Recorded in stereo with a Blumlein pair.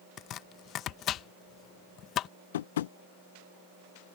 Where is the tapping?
60° left.